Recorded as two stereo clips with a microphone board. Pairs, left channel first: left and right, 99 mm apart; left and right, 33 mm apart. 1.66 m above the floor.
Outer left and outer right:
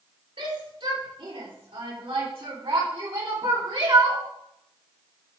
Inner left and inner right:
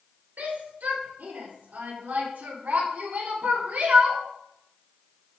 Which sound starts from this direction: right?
A shout, at 0.4 s.